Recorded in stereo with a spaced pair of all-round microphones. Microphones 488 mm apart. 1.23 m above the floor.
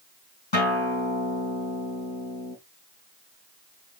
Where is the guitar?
65° left (ahead or behind), 4 m.